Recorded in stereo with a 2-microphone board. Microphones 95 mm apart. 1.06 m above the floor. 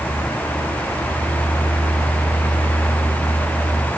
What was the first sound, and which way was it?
Only background noise.